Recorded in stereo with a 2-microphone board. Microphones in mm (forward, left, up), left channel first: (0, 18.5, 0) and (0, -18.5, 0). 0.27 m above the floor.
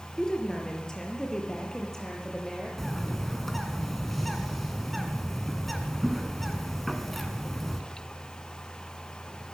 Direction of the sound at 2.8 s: 5° left (ahead or behind).